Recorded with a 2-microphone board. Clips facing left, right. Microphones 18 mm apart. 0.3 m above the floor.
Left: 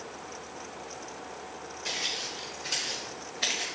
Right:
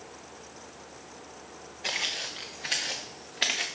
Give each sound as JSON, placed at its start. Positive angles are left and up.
{"t": 1.8, "sound": "footsteps", "side_deg": -75, "distance_m": 1.4}